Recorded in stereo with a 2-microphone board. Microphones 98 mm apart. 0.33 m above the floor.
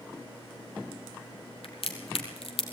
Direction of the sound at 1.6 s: 70° left (ahead or behind).